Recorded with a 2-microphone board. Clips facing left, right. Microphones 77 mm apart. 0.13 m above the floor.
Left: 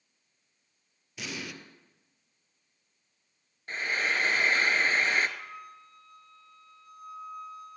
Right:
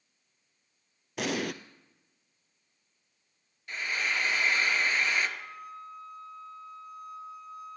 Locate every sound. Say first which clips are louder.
1.2 s an explosion: right 8 dB; 60° right (ahead or behind), 0.7 m
3.7 s frying: left 2 dB; 35° left (ahead or behind), 1.1 m
5.4 s a flute: right 2 dB; 70° left (ahead or behind), 4 m